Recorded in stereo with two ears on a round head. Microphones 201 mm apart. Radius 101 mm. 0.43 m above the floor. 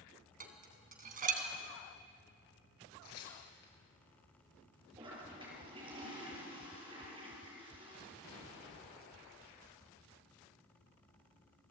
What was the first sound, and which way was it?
Dishes clattering, 40° right (ahead or behind).